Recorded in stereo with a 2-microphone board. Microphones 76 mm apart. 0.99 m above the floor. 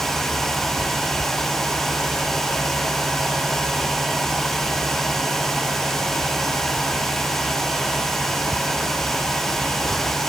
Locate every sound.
Only background noise.